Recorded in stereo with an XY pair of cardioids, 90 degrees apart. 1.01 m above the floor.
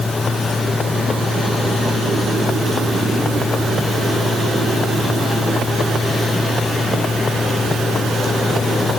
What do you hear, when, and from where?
0.0 s a fan: 35° left